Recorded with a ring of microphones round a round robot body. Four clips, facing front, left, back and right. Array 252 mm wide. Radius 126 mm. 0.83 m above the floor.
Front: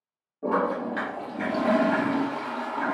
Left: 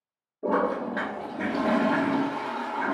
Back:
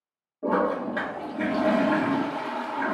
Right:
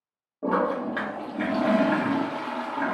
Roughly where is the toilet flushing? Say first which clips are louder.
Right 1 dB, back 1 dB; right.